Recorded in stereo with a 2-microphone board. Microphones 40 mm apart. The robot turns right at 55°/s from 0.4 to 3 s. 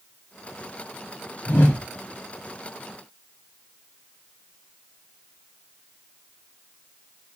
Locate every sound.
1.5 s a whoosh: 50° left (ahead or behind), 1.5 m; by 1.8 s 55° left (ahead or behind), 1.5 m